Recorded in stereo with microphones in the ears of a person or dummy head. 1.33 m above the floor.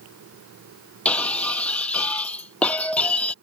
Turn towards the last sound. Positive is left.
turn(degrees=5)  # may be behind; listen again after turning